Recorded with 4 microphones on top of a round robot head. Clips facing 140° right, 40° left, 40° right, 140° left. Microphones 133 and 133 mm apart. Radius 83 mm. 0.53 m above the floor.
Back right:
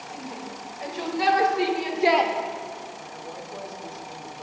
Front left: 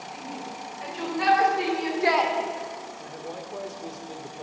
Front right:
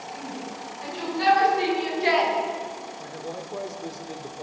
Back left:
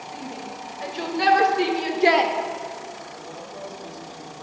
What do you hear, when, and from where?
0.1 s a shout: 170° left, 3.5 m; by 2.3 s 150° left, 1.6 m
3.0 s a man speaking: 20° right, 1.8 m